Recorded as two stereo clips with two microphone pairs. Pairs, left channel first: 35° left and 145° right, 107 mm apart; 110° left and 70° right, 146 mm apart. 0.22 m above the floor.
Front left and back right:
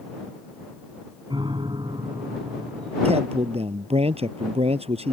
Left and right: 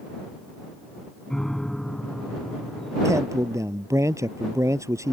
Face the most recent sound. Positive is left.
turn(degrees=-140)